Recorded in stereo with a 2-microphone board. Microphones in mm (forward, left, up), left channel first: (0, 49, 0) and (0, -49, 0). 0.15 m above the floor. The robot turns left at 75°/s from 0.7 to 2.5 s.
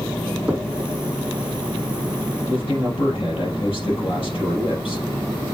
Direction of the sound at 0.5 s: 15° right (ahead or behind).